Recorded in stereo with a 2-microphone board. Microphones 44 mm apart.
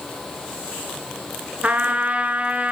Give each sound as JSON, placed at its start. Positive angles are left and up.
{"t": 1.6, "sound": "a trumpet", "side_deg": -30, "distance_m": 0.7}